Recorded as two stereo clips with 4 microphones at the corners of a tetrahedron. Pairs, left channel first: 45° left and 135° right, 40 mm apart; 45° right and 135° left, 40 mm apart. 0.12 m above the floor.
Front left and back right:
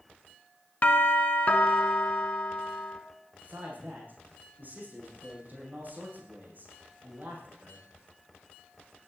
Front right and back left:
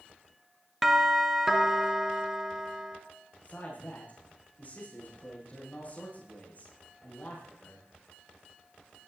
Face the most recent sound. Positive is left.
turn(degrees=-95)